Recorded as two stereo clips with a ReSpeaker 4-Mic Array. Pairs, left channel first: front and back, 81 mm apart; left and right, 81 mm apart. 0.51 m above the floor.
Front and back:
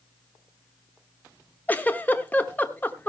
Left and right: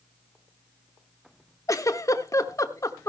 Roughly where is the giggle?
Ahead left.